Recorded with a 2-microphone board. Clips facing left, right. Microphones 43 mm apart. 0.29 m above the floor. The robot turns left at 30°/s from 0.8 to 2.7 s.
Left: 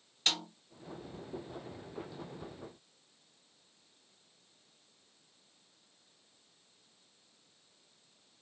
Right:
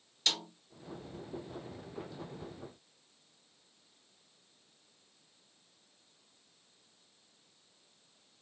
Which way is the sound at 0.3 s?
35° left (ahead or behind).